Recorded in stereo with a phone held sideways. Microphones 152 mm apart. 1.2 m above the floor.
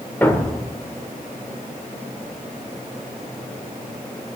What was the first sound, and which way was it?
A thud, 15° left (ahead or behind).